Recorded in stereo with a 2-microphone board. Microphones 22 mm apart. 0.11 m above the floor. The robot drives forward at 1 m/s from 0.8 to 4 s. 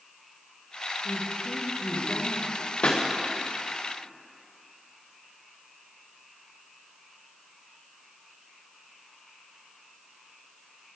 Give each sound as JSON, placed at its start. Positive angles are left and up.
{"t": 1.0, "sound": "a woman speaking", "side_deg": 55, "distance_m": 4.5}
{"t": 2.8, "sound": "a pop", "side_deg": 55, "distance_m": 2.5}